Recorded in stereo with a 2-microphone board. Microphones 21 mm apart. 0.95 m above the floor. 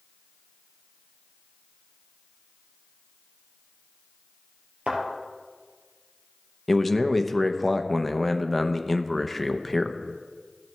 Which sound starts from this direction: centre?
A man speaking, at 6.7 s.